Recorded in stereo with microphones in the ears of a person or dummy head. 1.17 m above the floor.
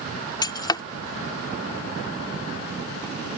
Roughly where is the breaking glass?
Left.